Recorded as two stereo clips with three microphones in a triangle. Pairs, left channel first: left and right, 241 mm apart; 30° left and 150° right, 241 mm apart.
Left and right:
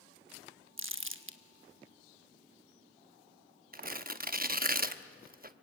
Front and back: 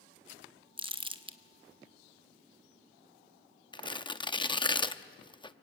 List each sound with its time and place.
0.8 s crumpling: 85° right, 1.2 m
3.7 s tearing paper: 40° right, 0.8 m